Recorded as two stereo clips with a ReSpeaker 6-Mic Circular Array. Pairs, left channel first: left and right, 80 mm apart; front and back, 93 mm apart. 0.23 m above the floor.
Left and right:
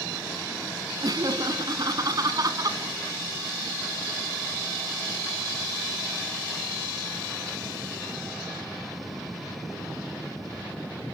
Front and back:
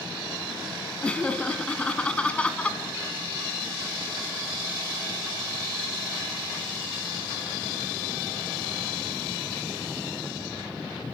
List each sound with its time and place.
1.0 s laughter: 75° right, 1.7 m